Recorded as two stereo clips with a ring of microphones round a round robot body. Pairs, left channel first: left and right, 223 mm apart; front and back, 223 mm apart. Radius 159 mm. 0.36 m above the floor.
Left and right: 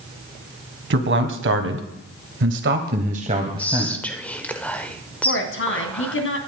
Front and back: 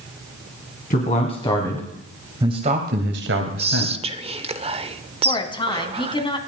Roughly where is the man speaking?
Ahead right.